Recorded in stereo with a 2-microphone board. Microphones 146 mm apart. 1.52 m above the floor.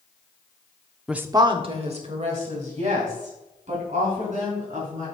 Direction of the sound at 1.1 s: Centre (ahead or behind).